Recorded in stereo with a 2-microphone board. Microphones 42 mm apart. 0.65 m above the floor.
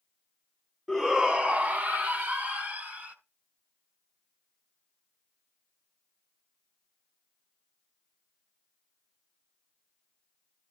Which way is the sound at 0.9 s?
Centre (ahead or behind).